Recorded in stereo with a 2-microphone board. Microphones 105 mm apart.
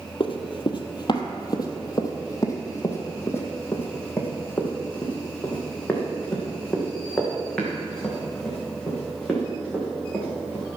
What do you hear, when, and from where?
0.2 s running footsteps: 55° left (ahead or behind), 1.3 m; by 10.6 s 5° left (ahead or behind), 5.5 m